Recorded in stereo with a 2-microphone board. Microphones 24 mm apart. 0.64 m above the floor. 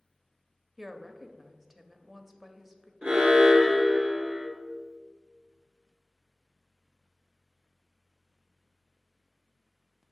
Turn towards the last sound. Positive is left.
turn(degrees=-60)  # may be behind; listen again after turning